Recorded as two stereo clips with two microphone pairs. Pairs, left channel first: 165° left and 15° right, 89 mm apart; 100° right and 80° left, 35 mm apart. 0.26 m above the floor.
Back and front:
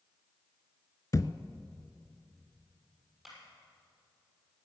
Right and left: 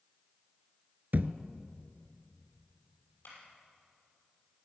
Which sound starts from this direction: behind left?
A thud, at 1.1 s.